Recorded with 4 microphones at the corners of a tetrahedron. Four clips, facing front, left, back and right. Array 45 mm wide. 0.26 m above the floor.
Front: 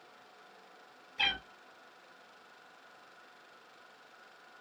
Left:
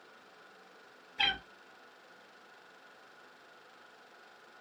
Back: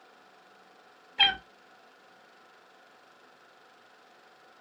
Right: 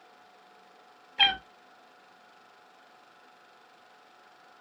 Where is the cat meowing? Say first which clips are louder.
Right 7 dB, back 8 dB; 125° right, 1.1 m.